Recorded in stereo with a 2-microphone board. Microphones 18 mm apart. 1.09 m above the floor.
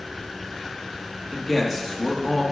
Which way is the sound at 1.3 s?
5° right (ahead or behind).